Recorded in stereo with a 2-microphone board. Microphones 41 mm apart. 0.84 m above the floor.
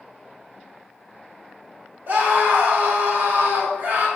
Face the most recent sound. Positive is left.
turn(degrees=-55)  # may be behind; listen again after turning